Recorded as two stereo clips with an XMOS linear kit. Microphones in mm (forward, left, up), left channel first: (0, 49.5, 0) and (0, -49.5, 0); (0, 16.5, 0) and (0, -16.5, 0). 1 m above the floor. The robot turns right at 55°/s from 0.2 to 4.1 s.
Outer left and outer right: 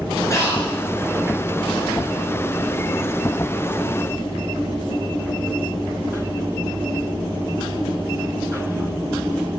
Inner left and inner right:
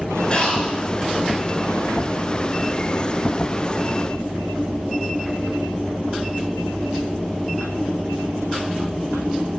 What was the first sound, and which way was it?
Breathing, 30° left (ahead or behind).